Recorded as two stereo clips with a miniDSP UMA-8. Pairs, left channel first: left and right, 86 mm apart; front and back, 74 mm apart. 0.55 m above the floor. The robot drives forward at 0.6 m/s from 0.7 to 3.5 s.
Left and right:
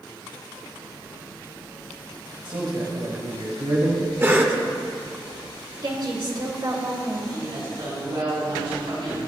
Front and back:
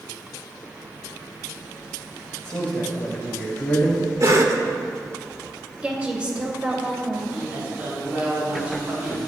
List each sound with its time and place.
2.4 s a man speaking: 70° right, 2.5 m; by 4.1 s 85° right, 2 m
4.2 s a cough: 145° right, 1.6 m
5.8 s a woman speaking: 105° right, 2.5 m
7.3 s a woman speaking: 110° right, 4 m